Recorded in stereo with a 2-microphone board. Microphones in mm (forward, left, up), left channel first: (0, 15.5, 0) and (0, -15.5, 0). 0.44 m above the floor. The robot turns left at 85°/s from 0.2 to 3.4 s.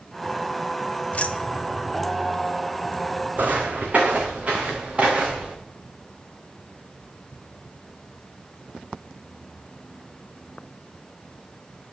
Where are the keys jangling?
50° left (ahead or behind), 1.0 m; by 1.9 s 10° right (ahead or behind), 1.0 m.